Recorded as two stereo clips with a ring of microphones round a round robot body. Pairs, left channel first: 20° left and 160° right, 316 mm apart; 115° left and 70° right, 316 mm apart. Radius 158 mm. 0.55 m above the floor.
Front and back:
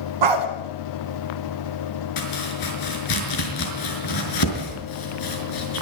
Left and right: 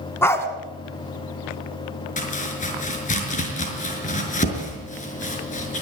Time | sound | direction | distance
0.2 | a dog barking | 165° right | 2 m
2.2 | chopping | 45° left | 5.5 m